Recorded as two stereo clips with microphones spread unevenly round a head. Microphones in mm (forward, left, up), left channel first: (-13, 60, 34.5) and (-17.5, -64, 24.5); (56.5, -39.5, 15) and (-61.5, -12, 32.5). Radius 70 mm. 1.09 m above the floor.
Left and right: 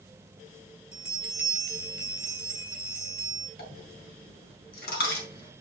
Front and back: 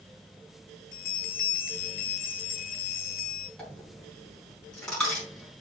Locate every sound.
0.9 s a bell: 5° right, 2 m
3.6 s a dropped coin: 75° left, 4 m